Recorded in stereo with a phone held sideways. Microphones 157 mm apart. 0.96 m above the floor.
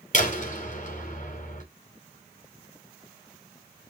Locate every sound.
0.1 s a door slam: 50° left (ahead or behind), 4.5 m